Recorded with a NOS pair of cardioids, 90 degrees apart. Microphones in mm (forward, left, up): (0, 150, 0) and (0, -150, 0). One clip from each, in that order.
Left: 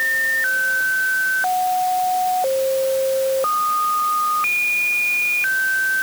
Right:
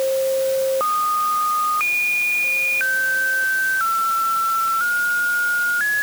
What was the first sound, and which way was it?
Only background noise.